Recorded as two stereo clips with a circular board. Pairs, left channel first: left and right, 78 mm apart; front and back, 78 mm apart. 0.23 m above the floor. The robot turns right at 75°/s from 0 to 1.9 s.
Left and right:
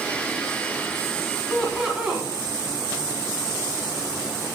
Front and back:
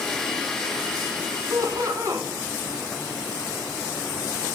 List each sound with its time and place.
1.5 s laughter: 160° left, 1.5 m; by 2.3 s 170° right, 1.5 m